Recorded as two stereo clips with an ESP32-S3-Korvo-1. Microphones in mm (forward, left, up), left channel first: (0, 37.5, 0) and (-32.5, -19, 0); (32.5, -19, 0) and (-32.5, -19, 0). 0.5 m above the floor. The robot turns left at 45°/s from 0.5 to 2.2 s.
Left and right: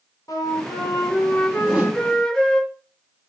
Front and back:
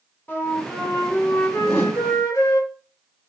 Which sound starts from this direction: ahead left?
A flute, at 0.3 s.